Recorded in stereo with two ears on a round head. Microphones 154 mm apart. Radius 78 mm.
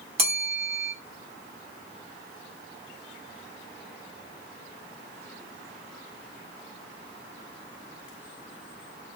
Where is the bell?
40° right (ahead or behind), 0.8 m.